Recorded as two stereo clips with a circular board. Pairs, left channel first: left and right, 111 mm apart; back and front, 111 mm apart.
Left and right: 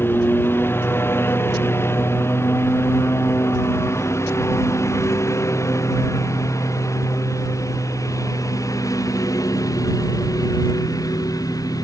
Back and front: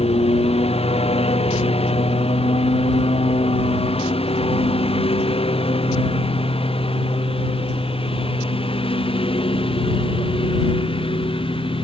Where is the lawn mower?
160° left; by 11.8 s 145° left.